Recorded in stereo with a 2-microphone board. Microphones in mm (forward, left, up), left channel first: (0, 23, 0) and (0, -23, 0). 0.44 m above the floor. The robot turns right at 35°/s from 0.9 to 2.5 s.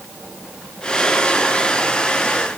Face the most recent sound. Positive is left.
No sound to turn to.